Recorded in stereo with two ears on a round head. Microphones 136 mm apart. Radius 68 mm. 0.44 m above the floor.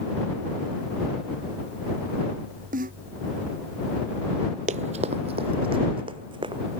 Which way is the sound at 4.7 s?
50° right (ahead or behind).